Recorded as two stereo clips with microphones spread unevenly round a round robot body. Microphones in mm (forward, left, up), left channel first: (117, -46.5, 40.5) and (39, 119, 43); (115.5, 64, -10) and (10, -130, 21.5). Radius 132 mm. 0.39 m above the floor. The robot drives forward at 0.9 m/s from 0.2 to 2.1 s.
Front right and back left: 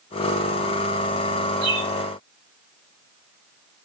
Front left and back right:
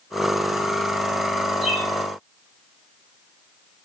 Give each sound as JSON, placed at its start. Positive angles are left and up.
{"t": 1.6, "sound": "a bird", "azimuth_deg": 150, "distance_m": 3.5}